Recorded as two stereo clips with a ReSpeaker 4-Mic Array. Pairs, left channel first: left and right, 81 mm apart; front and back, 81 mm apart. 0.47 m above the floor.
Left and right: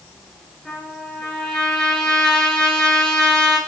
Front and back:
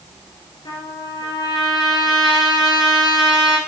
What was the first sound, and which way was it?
A trumpet, 10° left.